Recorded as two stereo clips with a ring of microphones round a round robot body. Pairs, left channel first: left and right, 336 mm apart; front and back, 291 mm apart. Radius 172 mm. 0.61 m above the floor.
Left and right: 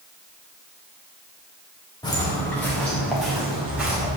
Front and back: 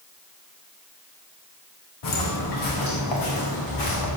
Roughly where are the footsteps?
Ahead.